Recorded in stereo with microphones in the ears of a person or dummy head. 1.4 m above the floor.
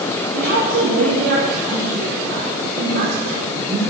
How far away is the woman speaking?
About 1.8 m.